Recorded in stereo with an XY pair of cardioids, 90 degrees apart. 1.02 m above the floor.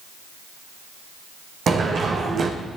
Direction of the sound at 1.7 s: 60° right.